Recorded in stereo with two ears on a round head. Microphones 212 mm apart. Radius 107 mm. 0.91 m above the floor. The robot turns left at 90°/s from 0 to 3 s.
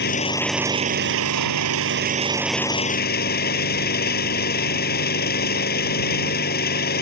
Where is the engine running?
45° left; by 7.0 s 135° left.